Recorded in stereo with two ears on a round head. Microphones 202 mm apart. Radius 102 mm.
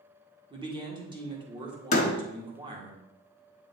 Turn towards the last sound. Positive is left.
turn(degrees=35)  # may be behind; listen again after turning